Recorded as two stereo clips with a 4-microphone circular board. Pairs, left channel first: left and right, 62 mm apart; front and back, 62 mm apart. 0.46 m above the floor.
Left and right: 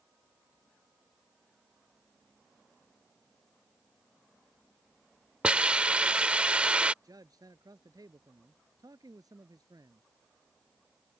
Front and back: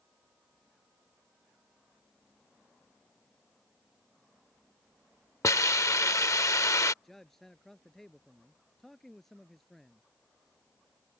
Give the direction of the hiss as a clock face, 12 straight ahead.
1 o'clock.